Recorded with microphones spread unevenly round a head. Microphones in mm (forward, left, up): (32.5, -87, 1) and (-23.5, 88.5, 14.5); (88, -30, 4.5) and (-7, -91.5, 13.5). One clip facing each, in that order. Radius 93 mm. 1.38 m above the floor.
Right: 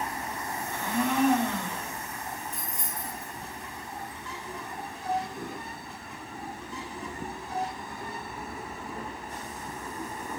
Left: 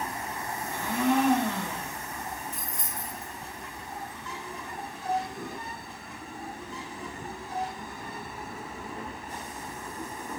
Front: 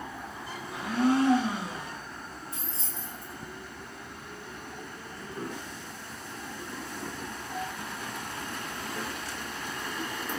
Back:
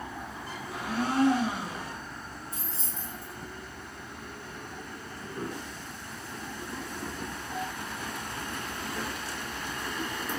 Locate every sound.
0.7 s a blender: 170° left, 1.1 m
2.5 s keys jangling: 170° right, 0.5 m